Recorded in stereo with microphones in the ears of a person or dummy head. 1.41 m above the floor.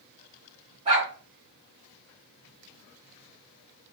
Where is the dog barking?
35° right (ahead or behind), 1.6 m.